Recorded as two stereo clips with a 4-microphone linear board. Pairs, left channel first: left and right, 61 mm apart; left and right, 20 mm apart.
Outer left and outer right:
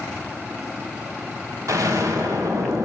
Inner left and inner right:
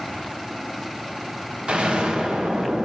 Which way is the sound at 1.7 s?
65° right (ahead or behind).